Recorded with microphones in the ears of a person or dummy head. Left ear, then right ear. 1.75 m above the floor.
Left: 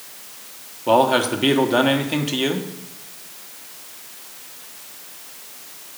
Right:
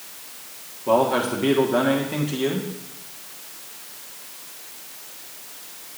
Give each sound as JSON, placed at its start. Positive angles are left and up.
{"t": 0.9, "sound": "a man speaking", "side_deg": 25, "distance_m": 1.1}